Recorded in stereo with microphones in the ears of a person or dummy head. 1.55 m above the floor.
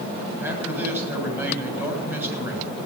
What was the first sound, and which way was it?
A man speaking, 10° right (ahead or behind).